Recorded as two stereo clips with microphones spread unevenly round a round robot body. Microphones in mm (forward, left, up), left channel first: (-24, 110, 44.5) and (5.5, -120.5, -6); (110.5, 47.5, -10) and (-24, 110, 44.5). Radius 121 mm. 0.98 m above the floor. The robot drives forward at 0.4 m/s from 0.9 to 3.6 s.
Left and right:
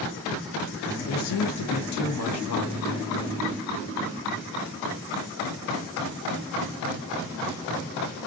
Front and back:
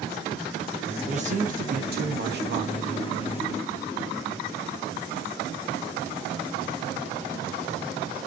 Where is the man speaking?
95° left, 0.8 m; by 3.0 s 140° left, 1.2 m.